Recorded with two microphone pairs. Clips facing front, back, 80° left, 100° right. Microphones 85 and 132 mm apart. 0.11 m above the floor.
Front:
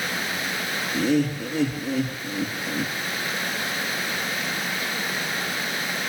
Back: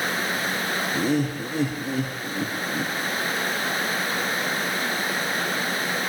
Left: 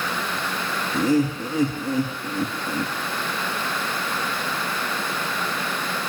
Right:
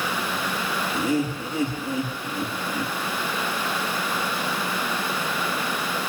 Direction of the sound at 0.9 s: 135° left.